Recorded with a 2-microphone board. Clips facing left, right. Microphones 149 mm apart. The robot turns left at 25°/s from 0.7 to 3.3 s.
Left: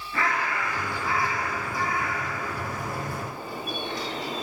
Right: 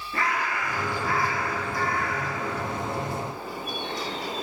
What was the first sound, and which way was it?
A bird, 40° right.